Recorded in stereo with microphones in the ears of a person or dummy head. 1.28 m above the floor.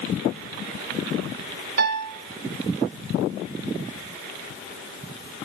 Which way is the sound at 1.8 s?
65° right (ahead or behind).